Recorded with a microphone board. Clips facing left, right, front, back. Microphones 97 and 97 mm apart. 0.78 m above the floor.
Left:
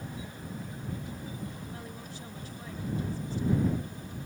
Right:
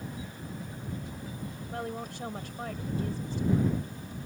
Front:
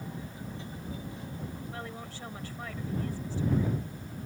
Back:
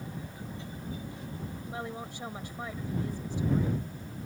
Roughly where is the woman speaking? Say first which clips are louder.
Right 7 dB, back 3 dB; right.